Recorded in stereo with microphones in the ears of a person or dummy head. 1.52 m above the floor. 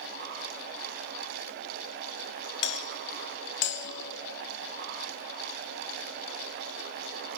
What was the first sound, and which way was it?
A doorbell, 60° left (ahead or behind).